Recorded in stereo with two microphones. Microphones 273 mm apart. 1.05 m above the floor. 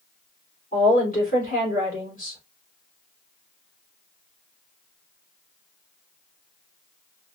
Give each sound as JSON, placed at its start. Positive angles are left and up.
{"t": 0.7, "sound": "a woman speaking", "side_deg": 30, "distance_m": 3.5}